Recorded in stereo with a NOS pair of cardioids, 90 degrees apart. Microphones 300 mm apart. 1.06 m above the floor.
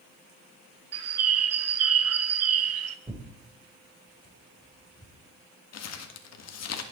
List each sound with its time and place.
0.9 s a bird: 55° right, 1.1 m
3.1 s tearing paper: 15° right, 4.5 m
5.7 s crumpling: 60° left, 1.7 m